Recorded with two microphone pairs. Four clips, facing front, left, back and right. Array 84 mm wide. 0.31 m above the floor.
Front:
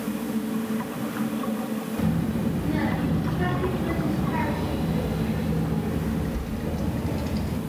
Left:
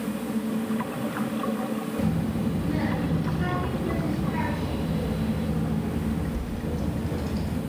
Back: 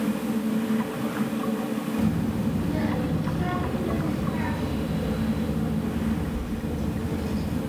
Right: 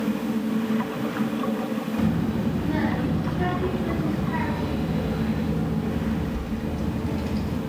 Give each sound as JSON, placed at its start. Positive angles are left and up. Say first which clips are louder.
{"t": 2.0, "sound": "a child speaking", "louder": "right 3 dB, front 1 dB", "azimuth_deg": -75, "distance_m": 3.5}